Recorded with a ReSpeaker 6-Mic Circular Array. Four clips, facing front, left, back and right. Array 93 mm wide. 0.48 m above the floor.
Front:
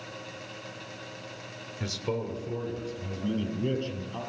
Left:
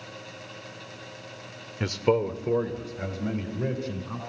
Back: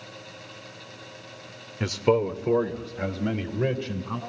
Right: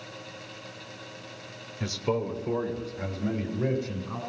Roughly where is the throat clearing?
I don't hear throat clearing.